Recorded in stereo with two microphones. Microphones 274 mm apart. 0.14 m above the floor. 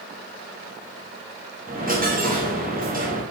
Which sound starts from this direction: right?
A dropped coin, at 1.7 s.